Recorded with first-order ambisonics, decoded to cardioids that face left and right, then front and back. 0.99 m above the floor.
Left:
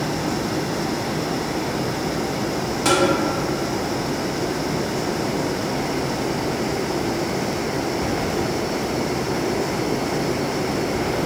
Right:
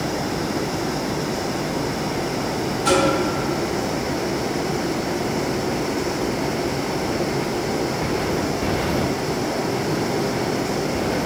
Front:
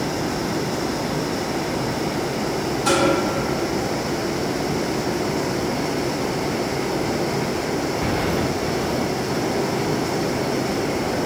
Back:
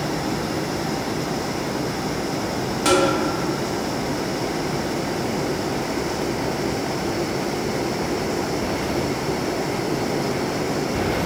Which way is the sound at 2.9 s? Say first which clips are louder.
Even, back 2 dB; 145° left.